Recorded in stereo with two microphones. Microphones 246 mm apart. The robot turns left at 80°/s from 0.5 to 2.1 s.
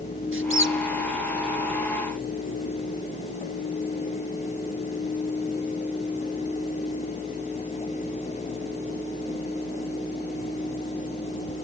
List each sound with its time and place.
0.3 s a squeak: 50° right (ahead or behind), 0.6 m; by 0.8 s 45° right (ahead or behind), 0.6 m